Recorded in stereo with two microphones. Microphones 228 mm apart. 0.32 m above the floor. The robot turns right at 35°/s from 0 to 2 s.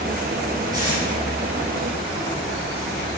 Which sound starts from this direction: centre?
Tape being pulled, at 0.7 s.